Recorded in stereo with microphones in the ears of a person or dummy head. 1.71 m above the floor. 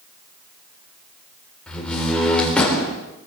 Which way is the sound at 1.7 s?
5° left (ahead or behind).